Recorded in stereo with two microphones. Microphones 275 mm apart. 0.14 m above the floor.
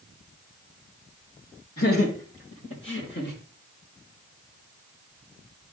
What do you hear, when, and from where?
1.8 s laughter: 55° left (ahead or behind), 4.5 m; by 3.4 s 35° left (ahead or behind), 3 m